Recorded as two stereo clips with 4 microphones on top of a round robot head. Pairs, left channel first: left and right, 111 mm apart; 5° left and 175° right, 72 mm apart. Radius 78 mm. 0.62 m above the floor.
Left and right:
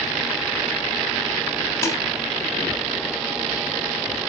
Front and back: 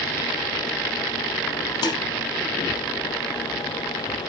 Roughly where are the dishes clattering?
Ahead left.